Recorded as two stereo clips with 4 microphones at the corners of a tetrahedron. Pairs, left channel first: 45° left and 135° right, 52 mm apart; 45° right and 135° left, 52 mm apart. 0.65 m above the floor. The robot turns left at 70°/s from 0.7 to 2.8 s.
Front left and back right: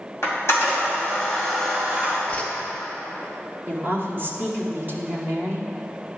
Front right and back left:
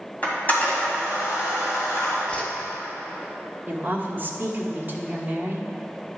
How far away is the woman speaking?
About 1.1 m.